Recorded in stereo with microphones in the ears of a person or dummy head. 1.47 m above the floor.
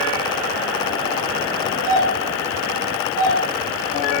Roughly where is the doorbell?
Left.